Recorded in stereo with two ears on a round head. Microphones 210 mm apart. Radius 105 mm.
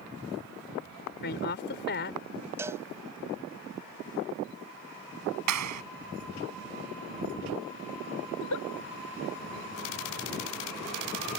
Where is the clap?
80° right.